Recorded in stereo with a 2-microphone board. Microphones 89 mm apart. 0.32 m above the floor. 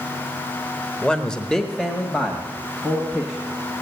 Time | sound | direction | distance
1.0 | a man speaking | 10° left (ahead or behind) | 1.0 m